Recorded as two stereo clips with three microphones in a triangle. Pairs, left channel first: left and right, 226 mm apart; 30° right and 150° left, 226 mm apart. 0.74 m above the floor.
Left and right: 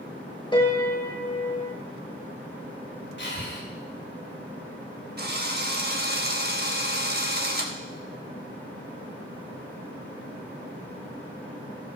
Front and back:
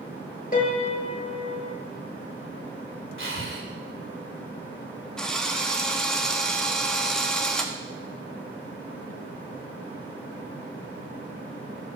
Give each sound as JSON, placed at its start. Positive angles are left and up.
{"t": 0.5, "sound": "a piano", "azimuth_deg": 20, "distance_m": 1.8}
{"t": 3.2, "sound": "breathing", "azimuth_deg": 125, "distance_m": 2.0}
{"t": 5.2, "sound": "a drill", "azimuth_deg": -115, "distance_m": 1.2}